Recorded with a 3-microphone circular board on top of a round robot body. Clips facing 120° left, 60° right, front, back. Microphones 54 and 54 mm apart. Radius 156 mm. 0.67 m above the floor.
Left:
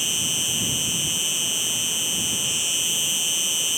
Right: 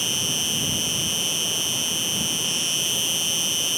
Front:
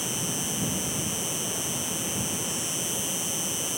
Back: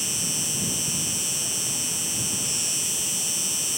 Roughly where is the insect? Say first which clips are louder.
Right 1 dB, front 1 dB; behind.